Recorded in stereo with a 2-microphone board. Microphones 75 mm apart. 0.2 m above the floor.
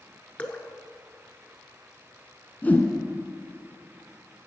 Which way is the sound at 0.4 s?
20° left (ahead or behind).